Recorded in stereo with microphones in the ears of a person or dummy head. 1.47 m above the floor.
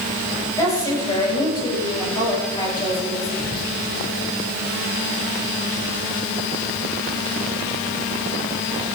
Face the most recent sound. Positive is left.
turn(degrees=50)  # may be behind; listen again after turning